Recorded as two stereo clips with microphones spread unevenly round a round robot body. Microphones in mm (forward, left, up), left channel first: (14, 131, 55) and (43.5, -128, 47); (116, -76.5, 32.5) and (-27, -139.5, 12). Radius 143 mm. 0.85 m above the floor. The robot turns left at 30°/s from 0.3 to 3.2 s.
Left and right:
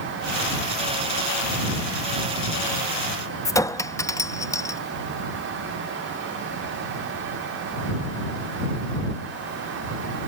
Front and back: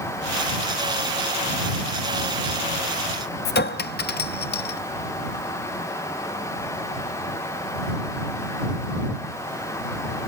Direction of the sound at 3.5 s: 15° left.